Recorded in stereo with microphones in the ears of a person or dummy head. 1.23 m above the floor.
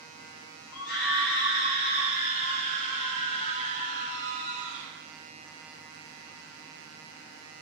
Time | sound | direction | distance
0.7 | a scream | 80° left | 4 m